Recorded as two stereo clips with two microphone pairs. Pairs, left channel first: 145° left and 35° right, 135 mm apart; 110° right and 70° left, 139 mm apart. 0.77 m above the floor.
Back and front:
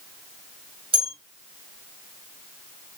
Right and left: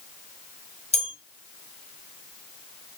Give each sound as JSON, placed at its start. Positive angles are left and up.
{"t": 0.9, "sound": "a bell", "azimuth_deg": -75, "distance_m": 2.5}